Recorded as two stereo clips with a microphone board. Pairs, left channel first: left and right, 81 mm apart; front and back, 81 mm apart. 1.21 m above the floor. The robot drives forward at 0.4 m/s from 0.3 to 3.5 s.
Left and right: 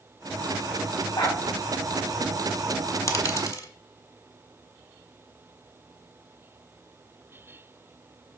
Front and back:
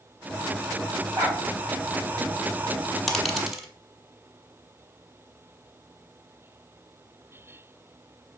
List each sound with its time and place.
1.1 s a dog barking: 130° left, 4 m; by 1.4 s 135° left, 4 m
3.1 s a dropped coin: 85° left, 1.4 m; by 3.7 s 95° left, 1.4 m